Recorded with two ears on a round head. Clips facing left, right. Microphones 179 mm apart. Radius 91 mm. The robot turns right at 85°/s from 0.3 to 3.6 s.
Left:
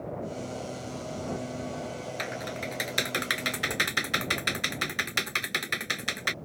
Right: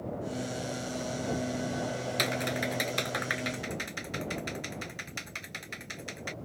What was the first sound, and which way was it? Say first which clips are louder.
Typing on a keyboard: right 3 dB; 50° right (ahead or behind).